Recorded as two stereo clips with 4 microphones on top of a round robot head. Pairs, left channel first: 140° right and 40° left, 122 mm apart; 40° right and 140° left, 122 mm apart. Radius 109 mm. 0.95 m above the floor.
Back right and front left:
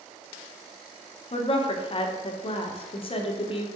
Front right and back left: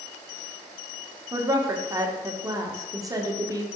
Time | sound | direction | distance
1.3 | a woman speaking | 165° right | 1.1 m